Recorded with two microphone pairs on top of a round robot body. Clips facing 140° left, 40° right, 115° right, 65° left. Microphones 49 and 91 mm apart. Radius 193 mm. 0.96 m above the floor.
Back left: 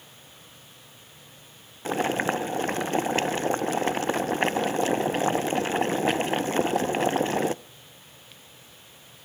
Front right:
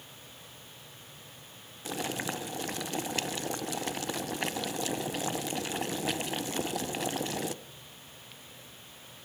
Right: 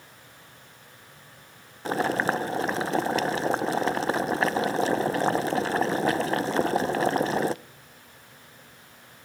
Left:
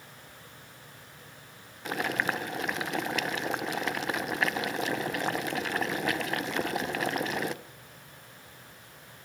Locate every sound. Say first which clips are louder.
1.9 s boiling: back left 10 dB, right 5 dB; 170° right, 0.8 m